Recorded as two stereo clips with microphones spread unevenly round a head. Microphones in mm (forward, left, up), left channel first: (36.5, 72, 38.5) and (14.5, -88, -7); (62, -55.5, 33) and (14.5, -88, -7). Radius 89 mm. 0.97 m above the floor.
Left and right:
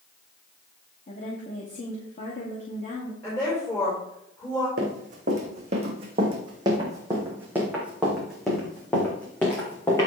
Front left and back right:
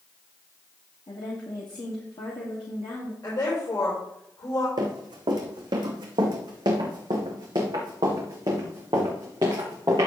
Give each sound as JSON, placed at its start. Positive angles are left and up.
{"t": 1.1, "sound": "a woman speaking", "azimuth_deg": 35, "distance_m": 2.0}
{"t": 3.2, "sound": "a woman speaking", "azimuth_deg": 5, "distance_m": 4.5}
{"t": 4.8, "sound": "running footsteps", "azimuth_deg": -145, "distance_m": 3.0}